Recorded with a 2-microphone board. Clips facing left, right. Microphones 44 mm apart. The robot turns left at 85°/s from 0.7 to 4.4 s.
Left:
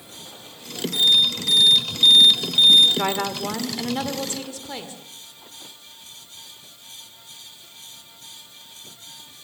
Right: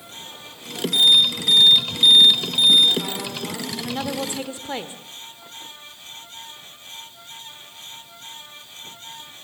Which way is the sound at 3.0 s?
90° left.